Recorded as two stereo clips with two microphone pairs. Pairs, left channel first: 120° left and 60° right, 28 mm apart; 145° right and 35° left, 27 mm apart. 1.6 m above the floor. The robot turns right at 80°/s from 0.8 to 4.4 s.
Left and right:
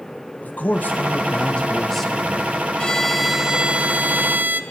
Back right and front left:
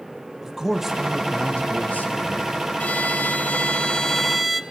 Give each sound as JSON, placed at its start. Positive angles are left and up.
{"t": 0.4, "sound": "a man speaking", "azimuth_deg": 110, "distance_m": 2.5}
{"t": 2.8, "sound": "a violin", "azimuth_deg": 180, "distance_m": 1.0}